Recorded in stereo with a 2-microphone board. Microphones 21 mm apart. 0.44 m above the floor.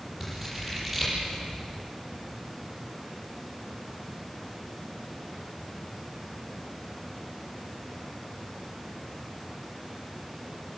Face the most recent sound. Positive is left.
turn(degrees=-10)  # may be behind; listen again after turning